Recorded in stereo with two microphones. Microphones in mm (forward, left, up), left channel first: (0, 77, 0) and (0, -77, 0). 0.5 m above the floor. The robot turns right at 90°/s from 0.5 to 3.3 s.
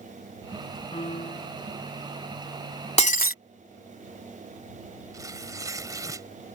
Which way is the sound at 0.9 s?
35° left.